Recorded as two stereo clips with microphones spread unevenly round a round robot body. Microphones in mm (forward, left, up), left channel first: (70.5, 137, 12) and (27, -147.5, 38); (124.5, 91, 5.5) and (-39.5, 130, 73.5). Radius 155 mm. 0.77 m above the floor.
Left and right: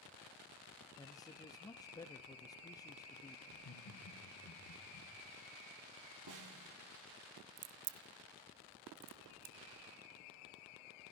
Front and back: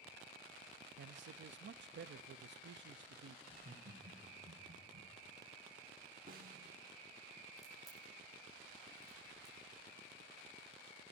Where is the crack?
110° right, 0.8 m.